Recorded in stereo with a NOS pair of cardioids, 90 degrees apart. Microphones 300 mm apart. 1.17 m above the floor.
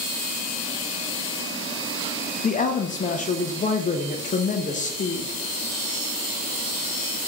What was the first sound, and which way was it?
A woman speaking, 25° left.